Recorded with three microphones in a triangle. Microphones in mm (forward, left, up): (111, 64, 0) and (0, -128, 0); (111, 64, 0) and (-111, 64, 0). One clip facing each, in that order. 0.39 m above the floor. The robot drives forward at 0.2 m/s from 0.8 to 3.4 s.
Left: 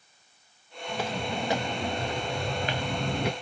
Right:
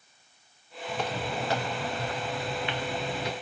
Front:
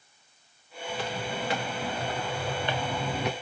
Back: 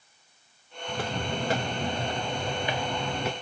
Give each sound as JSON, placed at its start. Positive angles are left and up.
{"t": 0.9, "sound": "footsteps", "azimuth_deg": 145, "distance_m": 2.0}